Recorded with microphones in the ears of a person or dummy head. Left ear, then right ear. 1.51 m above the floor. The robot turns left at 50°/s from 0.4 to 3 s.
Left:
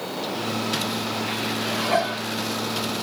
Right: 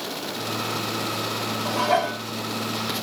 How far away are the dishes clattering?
About 2 m.